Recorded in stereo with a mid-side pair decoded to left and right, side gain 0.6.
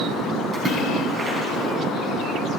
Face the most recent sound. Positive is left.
turn(degrees=-30)